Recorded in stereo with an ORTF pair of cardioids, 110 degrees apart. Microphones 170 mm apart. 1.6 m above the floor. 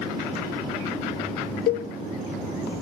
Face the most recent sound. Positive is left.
turn(degrees=60)